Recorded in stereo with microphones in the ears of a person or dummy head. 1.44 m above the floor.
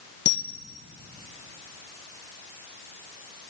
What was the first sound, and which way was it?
A camera shutter, 60° left (ahead or behind).